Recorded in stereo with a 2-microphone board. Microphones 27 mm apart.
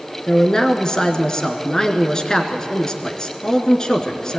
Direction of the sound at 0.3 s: 25° left (ahead or behind).